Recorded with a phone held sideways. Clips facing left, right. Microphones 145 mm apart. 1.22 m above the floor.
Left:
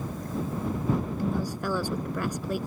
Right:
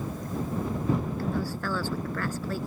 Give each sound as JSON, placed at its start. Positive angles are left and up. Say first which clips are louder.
{"t": 1.2, "sound": "a woman speaking", "louder": "left 1 dB", "side_deg": 15}